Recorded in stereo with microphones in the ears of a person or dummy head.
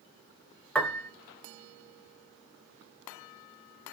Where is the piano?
5° left (ahead or behind), 0.5 m.